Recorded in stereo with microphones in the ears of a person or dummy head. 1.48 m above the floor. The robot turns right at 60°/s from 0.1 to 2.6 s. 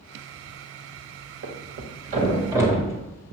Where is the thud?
65° right (ahead or behind), 2 m; by 3.0 s 15° right (ahead or behind), 2 m.